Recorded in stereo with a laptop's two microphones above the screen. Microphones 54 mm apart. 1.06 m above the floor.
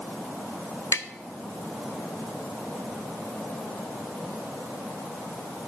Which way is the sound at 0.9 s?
65° left (ahead or behind).